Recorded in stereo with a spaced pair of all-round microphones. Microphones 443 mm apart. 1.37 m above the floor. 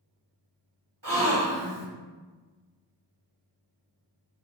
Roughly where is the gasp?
Right.